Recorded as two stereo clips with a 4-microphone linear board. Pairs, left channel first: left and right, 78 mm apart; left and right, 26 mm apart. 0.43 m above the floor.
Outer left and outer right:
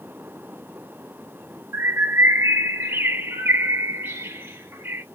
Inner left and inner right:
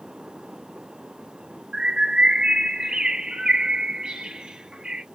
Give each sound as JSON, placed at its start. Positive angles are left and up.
{"t": 1.7, "sound": "a bird", "side_deg": -35, "distance_m": 0.8}